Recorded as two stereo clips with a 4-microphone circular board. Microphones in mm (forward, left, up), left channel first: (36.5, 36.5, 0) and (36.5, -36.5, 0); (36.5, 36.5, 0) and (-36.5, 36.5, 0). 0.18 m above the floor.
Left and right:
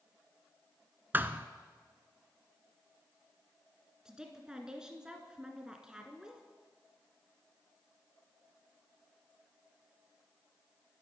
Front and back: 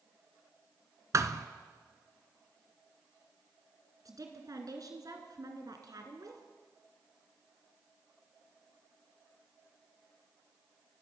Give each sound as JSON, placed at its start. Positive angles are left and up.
{"t": 1.1, "sound": "a thud", "azimuth_deg": -150, "distance_m": 0.7}
{"t": 4.0, "sound": "a woman speaking", "azimuth_deg": -170, "distance_m": 2.0}